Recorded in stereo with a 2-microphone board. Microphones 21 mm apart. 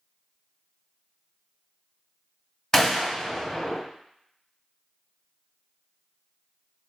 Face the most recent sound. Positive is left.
turn(degrees=15)  # may be behind; listen again after turning